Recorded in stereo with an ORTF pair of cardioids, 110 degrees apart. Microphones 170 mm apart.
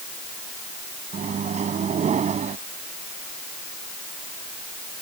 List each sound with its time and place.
1.1 s a microwave: 45° right